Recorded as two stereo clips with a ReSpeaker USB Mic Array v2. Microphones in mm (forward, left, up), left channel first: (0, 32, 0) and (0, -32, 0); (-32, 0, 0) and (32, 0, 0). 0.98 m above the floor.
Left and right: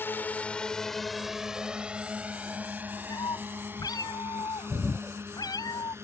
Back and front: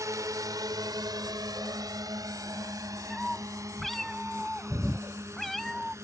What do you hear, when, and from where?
0.0 s a drone: 35° left; by 6.0 s 45° right
3.1 s a cat meowing: 95° left